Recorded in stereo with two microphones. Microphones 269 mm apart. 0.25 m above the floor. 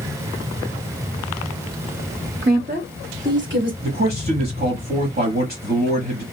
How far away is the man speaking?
About 1.2 m.